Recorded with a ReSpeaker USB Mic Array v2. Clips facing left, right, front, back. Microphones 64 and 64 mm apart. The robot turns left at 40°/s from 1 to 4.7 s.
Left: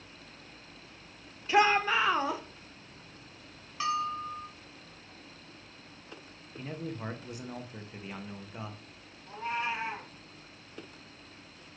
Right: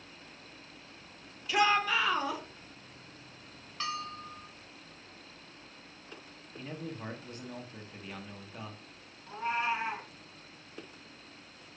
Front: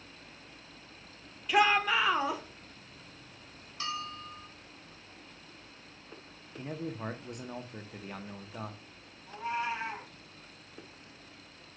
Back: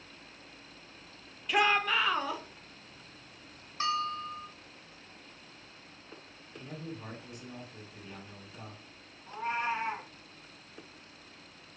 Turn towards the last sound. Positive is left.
turn(degrees=-155)